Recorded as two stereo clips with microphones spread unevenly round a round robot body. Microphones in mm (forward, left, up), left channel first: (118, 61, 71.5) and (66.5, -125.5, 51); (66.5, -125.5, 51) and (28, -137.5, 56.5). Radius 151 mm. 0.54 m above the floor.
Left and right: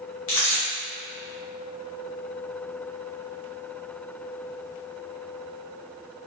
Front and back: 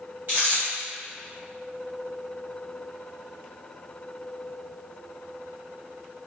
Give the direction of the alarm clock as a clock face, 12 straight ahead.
No alarm clock in this recording.